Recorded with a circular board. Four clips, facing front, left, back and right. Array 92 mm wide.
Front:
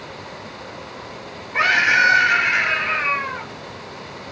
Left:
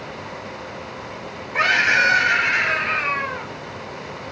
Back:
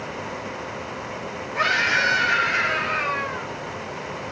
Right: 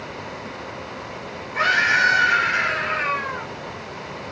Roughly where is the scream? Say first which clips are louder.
Left 1 dB, front 5 dB; ahead left.